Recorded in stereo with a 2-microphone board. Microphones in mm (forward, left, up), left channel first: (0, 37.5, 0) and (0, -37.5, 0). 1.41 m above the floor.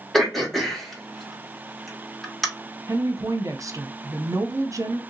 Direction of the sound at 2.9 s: 45° right (ahead or behind).